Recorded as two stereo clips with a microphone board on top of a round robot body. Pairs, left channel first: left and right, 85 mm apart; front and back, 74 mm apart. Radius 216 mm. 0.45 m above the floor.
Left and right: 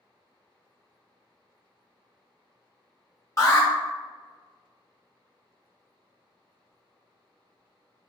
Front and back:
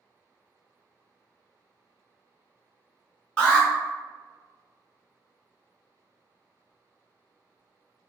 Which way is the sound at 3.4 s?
70° left.